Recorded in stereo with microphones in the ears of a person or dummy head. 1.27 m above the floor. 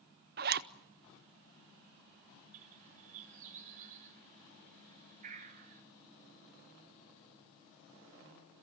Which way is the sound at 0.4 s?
45° right (ahead or behind).